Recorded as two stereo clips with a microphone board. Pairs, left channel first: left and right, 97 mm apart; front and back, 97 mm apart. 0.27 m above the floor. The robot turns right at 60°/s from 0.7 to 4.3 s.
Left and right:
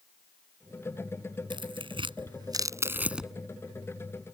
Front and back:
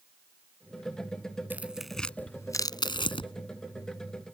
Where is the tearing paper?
110° right; by 3.3 s straight ahead.